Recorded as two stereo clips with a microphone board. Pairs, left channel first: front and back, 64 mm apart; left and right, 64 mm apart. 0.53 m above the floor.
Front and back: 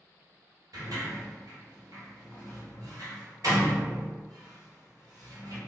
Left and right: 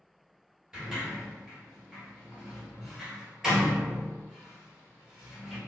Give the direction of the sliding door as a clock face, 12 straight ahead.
6 o'clock.